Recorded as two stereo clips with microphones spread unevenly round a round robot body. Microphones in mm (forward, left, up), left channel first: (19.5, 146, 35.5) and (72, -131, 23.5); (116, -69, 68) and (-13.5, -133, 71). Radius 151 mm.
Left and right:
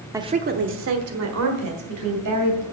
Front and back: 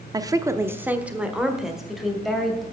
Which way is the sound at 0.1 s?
140° right.